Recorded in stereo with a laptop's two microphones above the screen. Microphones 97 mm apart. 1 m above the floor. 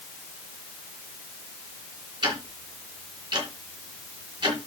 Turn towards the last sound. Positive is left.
turn(degrees=-45)  # may be behind; listen again after turning